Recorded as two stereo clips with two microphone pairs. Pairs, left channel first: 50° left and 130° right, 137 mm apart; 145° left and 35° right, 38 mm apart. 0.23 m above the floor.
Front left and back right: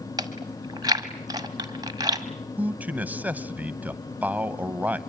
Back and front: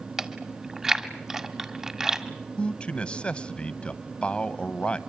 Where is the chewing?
105° right, 1.7 m.